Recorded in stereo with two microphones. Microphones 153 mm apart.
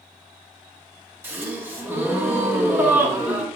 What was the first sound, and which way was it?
A gasp, 15° right (ahead or behind).